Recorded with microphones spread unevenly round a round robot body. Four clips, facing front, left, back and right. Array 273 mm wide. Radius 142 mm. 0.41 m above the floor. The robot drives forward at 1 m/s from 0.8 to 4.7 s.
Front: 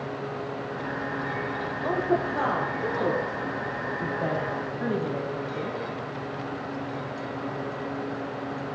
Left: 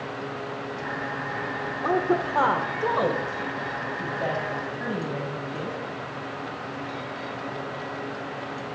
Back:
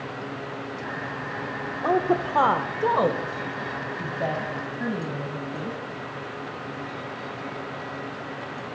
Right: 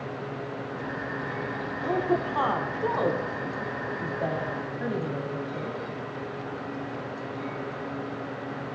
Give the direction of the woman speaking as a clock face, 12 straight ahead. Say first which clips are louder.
Left 2 dB, back 3 dB; 8 o'clock.